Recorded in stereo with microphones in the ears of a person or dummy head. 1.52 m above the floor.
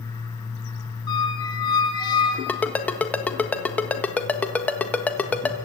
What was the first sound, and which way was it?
A squeak, 20° left (ahead or behind).